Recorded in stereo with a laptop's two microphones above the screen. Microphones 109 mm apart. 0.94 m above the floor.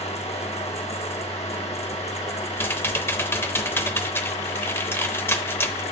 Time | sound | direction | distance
0.0 | a fan | 75° left (ahead or behind) | 1.1 m
2.6 | typing on a keyboard | 20° left (ahead or behind) | 0.7 m